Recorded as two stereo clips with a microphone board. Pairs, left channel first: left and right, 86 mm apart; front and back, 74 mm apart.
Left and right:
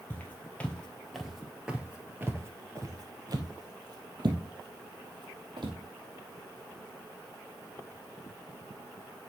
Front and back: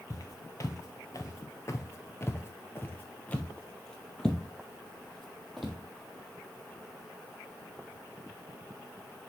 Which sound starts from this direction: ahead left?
Footsteps, at 0.1 s.